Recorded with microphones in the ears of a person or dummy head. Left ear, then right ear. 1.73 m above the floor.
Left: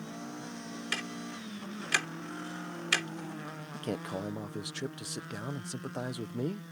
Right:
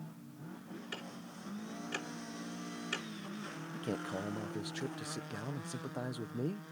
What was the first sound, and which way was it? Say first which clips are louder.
Ticking: left 11 dB; 55° left (ahead or behind).